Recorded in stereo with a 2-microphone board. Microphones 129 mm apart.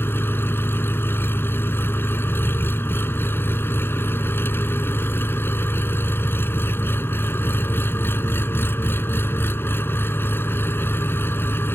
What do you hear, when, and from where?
0.0 s an engine running: 15° left (ahead or behind)